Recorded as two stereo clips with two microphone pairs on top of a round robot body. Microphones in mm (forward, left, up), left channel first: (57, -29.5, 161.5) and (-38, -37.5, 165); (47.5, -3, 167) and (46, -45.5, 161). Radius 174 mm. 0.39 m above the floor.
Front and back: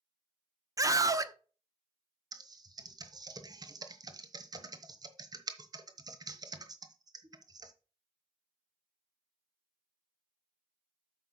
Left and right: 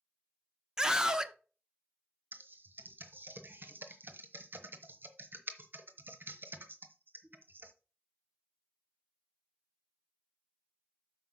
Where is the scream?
145° right, 1.0 m.